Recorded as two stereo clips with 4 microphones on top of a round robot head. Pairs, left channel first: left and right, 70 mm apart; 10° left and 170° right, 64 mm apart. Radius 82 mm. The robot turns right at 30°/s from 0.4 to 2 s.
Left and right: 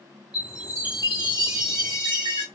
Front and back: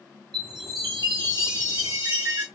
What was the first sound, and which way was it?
A chime, 165° right.